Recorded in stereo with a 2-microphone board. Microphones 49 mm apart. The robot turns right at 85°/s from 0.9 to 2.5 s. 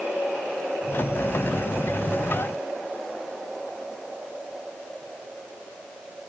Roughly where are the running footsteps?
I don't hear running footsteps.